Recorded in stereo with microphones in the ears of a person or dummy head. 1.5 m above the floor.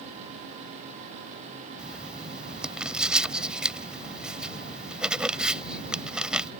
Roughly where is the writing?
Centre.